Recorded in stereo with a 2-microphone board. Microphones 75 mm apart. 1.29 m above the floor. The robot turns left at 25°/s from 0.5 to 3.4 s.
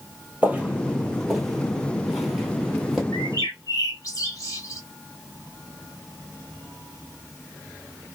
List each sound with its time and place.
0.4 s footsteps: 20° right (ahead or behind), 1.3 m; by 3.0 s 5° right (ahead or behind), 1.5 m
3.1 s a bird: 45° left (ahead or behind), 1.4 m; by 4.8 s 50° left (ahead or behind), 1.4 m